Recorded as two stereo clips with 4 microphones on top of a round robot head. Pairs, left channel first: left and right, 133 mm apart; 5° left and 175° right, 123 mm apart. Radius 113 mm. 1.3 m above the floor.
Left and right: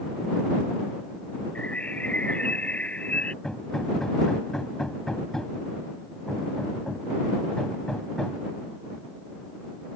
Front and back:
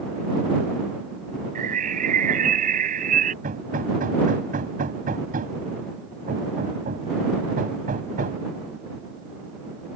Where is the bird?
175° left.